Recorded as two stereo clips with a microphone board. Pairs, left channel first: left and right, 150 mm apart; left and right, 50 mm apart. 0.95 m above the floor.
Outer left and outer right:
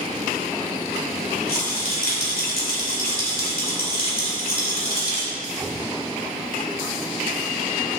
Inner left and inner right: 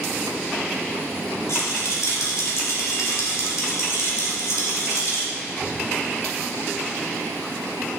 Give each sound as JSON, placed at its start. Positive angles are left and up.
{"t": 1.5, "sound": "a rattle", "side_deg": 75, "distance_m": 2.5}